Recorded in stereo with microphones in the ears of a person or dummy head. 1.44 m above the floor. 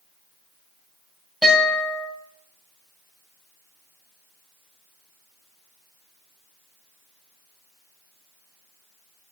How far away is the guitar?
About 2.5 m.